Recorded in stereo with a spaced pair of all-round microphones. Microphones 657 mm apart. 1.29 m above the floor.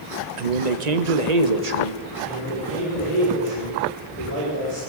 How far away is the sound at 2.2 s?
About 5.5 m.